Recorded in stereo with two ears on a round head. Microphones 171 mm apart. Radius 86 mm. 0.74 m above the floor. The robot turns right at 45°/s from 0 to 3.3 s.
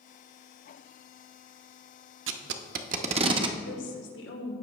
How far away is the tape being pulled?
About 0.7 m.